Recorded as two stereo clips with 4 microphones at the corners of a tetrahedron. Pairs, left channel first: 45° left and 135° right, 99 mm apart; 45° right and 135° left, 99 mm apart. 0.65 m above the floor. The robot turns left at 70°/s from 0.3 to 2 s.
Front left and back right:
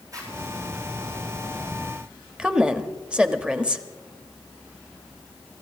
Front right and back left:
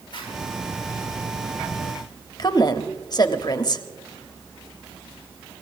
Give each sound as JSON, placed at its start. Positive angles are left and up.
{"t": 0.1, "sound": "a zipper", "azimuth_deg": -80, "distance_m": 9.5}
{"t": 2.4, "sound": "a woman speaking", "azimuth_deg": -60, "distance_m": 1.2}